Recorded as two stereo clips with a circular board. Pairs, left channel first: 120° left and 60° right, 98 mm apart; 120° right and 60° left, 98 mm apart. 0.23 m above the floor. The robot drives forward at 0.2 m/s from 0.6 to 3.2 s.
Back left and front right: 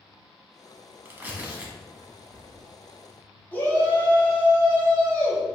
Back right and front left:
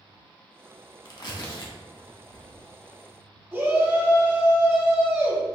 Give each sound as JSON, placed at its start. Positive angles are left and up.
{"t": 1.1, "sound": "tearing paper", "azimuth_deg": -120, "distance_m": 0.6}
{"t": 3.5, "sound": "a shout", "azimuth_deg": 85, "distance_m": 1.0}